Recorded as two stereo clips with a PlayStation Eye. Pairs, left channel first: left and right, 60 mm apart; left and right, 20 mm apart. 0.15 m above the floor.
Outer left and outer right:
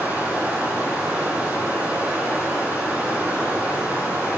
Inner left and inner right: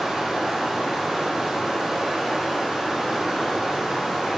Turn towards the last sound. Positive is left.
turn(degrees=-30)  # may be behind; listen again after turning